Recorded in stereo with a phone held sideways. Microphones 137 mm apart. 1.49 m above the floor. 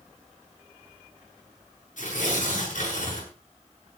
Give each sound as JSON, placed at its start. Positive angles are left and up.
{"t": 2.0, "sound": "tearing paper", "side_deg": 70, "distance_m": 9.5}